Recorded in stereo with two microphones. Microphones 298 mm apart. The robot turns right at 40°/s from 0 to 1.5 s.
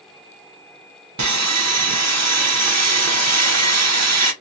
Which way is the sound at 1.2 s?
70° right (ahead or behind).